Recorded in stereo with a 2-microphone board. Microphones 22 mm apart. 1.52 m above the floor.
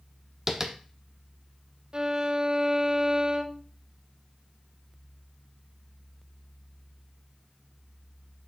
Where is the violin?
35° right (ahead or behind), 0.6 m.